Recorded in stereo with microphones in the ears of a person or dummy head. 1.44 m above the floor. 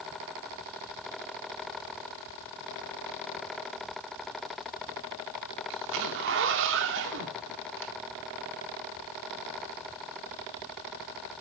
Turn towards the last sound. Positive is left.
turn(degrees=-65)  # may be behind; listen again after turning